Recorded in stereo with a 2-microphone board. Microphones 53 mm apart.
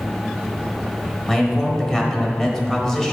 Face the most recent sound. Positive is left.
turn(degrees=10)  # may be behind; listen again after turning